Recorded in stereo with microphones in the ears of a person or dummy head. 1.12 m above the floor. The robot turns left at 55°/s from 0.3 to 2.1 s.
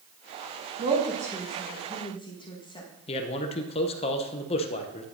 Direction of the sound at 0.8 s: 40° right (ahead or behind).